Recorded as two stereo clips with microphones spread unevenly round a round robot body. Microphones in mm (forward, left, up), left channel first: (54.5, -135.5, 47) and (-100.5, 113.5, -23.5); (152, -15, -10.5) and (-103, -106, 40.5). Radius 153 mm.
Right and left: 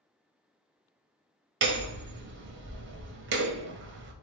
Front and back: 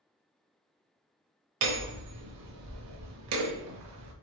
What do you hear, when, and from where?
1.6 s hammering: 165° left, 0.9 m